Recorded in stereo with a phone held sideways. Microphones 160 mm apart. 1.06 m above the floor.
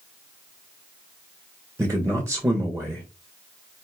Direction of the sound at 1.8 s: 20° right (ahead or behind).